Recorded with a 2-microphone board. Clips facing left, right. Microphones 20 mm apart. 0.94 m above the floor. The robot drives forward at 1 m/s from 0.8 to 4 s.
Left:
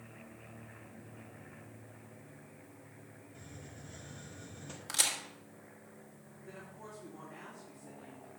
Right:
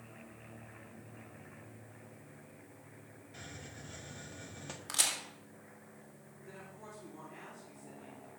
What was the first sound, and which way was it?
A hiss, 60° right (ahead or behind).